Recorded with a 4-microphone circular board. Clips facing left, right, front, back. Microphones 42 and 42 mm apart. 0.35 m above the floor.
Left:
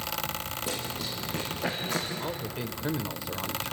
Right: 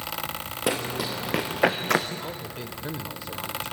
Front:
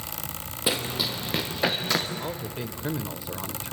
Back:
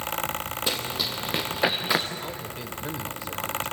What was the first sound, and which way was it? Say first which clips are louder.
Running footsteps: right 11 dB, front 4 dB; 80° right.